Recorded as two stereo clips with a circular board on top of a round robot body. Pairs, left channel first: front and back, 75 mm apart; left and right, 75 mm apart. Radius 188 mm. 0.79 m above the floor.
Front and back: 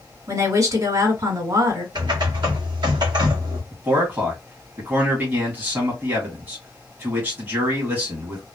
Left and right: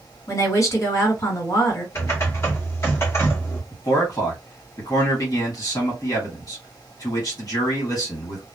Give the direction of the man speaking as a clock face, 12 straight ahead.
8 o'clock.